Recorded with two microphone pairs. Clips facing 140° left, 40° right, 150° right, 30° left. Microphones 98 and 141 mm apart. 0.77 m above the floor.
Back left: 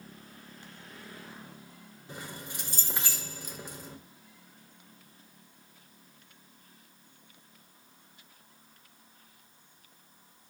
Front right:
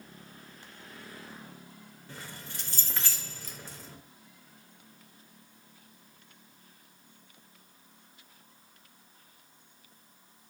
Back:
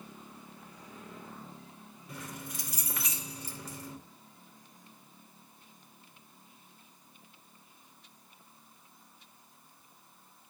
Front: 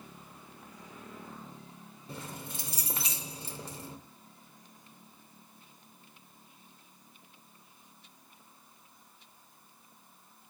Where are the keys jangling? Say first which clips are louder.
Back left 3 dB, front 1 dB; 80° left, 0.6 m.